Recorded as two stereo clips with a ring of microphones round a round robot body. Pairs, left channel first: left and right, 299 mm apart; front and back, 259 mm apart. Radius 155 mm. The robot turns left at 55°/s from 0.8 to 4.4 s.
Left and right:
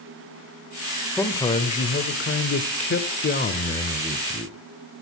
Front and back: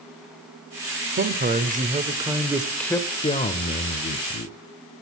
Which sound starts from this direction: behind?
A man speaking, at 1.2 s.